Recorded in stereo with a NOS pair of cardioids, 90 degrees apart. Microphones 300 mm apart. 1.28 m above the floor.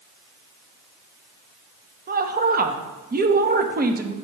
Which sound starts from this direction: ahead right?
A woman speaking, at 2.1 s.